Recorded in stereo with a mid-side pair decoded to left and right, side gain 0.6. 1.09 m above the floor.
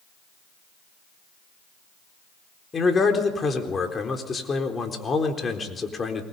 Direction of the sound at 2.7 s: 30° left.